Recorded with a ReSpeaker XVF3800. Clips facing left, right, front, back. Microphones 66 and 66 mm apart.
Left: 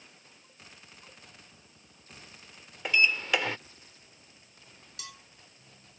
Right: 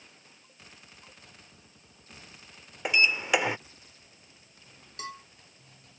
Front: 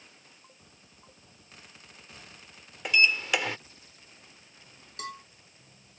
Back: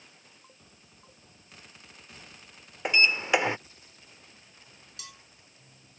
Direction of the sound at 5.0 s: 40° right.